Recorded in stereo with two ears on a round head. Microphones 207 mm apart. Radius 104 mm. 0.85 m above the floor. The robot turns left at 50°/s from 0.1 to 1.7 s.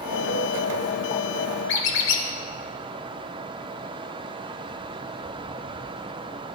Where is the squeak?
60° left (ahead or behind), 1.1 m.